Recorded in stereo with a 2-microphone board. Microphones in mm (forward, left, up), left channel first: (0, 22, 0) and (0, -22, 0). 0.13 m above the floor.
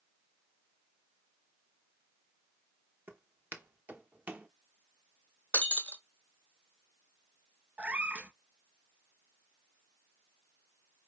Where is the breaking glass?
30° left (ahead or behind), 0.8 m.